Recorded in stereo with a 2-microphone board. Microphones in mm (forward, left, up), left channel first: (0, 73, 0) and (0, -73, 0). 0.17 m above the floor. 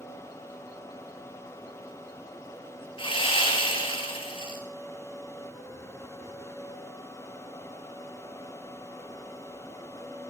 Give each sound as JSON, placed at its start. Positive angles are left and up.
{"t": 3.0, "sound": "sawing", "side_deg": 35, "distance_m": 4.0}